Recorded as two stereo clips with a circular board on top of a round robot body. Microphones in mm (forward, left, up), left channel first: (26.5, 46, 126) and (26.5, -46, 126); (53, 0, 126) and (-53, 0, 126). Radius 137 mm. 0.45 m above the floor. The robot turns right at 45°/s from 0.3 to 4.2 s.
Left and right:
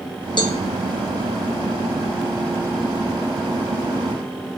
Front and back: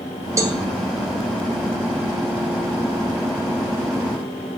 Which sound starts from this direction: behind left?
A cowbell, at 0.4 s.